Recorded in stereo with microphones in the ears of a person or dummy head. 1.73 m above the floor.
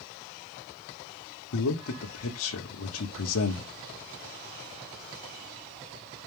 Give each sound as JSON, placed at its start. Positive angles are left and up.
{"t": 1.5, "sound": "a man speaking", "side_deg": 90, "distance_m": 1.2}